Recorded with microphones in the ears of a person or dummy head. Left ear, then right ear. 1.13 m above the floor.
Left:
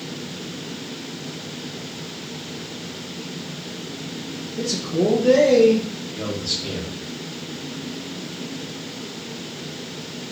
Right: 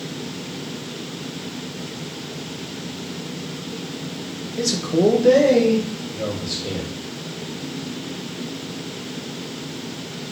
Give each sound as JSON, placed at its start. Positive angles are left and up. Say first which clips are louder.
{"t": 4.6, "sound": "a man speaking", "louder": "right 3 dB", "side_deg": -70, "distance_m": 1.1}